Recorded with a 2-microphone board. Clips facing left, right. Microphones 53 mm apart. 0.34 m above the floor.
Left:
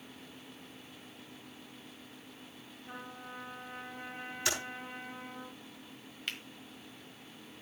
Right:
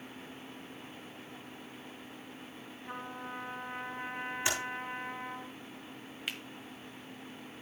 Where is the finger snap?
5° right (ahead or behind), 1.4 m.